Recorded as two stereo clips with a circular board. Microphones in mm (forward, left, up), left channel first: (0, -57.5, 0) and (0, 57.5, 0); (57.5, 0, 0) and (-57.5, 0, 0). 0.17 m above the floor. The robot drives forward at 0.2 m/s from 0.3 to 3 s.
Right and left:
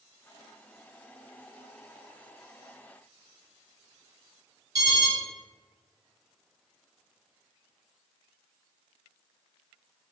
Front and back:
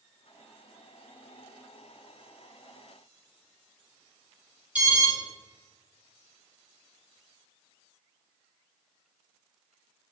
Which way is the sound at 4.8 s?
110° left.